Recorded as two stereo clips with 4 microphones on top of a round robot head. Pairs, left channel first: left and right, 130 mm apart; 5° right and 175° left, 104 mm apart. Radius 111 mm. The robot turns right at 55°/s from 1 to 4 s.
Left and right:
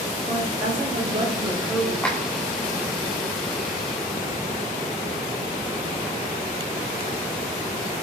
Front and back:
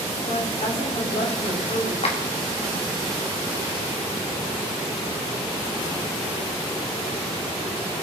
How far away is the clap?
About 2 m.